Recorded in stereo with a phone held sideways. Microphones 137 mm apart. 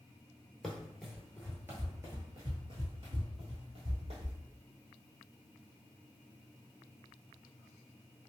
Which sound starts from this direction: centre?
Running footsteps, at 0.6 s.